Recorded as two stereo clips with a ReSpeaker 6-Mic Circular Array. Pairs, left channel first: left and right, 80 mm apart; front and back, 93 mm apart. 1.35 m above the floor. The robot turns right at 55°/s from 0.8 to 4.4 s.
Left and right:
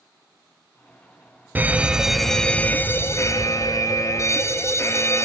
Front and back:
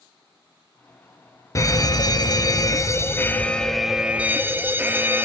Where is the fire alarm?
35° right, 1.0 m; by 5.2 s 120° left, 1.0 m.